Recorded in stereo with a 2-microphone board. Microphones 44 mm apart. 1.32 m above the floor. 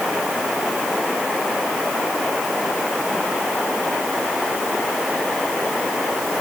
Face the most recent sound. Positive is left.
No sound to turn to.